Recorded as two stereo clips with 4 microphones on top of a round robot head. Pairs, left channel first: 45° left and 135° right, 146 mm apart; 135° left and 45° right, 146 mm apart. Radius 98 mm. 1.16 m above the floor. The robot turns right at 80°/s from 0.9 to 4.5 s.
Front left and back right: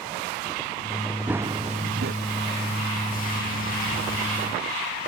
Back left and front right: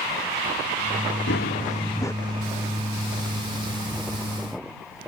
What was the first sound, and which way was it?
Running footsteps, 140° left.